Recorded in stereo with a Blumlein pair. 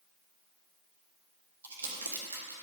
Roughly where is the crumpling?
Right.